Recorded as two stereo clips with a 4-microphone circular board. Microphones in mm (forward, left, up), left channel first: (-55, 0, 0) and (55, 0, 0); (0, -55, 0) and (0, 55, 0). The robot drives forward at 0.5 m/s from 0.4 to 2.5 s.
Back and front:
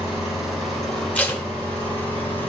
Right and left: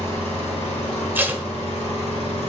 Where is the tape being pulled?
125° left, 0.8 m; by 1.4 s 140° left, 0.8 m.